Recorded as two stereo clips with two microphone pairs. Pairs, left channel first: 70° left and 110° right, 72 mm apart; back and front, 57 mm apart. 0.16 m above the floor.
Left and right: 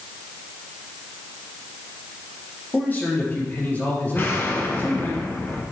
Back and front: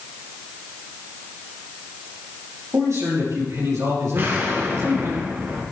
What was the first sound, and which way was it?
A man speaking, 10° left.